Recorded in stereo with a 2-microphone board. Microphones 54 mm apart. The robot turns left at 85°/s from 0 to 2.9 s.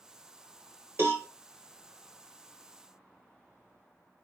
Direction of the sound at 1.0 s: 50° right (ahead or behind).